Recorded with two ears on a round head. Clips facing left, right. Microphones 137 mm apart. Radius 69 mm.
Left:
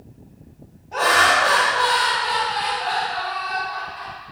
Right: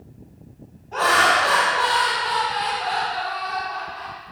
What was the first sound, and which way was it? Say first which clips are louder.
Laughter: even; 15° left (ahead or behind).